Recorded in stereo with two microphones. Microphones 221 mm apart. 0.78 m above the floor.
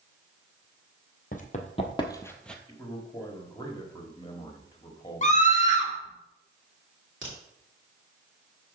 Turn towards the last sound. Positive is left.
turn(degrees=-60)  # may be behind; listen again after turning